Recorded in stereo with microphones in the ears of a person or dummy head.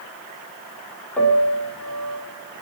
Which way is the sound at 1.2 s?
5° left (ahead or behind).